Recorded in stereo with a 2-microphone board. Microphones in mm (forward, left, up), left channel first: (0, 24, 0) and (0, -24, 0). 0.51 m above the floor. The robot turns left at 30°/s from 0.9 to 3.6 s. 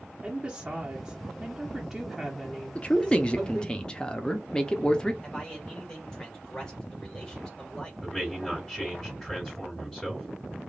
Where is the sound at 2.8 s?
25° left (ahead or behind), 0.7 m; by 5.1 s 20° left (ahead or behind), 0.7 m.